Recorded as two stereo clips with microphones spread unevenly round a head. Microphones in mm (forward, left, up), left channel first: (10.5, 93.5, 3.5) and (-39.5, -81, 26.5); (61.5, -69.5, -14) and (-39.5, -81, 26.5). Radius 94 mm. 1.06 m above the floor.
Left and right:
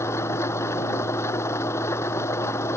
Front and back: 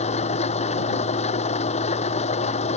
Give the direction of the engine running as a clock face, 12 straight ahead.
12 o'clock.